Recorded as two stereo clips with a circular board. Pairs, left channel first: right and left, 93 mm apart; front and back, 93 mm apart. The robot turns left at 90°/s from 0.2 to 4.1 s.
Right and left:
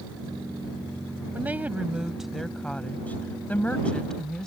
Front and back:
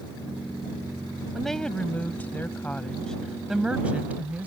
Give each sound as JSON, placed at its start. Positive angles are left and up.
{"t": 1.3, "sound": "a woman speaking", "azimuth_deg": 90}